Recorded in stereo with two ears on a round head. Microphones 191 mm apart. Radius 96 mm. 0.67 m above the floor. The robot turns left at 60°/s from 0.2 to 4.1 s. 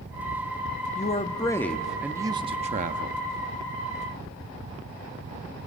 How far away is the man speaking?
About 0.7 m.